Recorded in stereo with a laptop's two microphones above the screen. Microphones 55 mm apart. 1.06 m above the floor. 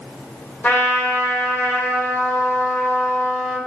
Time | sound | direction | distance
0.6 | a trumpet | 30° left (ahead or behind) | 0.8 m